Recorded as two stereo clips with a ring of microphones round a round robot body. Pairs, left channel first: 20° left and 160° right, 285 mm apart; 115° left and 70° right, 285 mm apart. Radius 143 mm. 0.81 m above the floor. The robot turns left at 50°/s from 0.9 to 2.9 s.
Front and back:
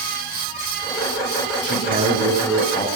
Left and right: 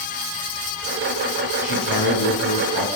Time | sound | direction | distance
1.6 | a man speaking | 150° left | 9 m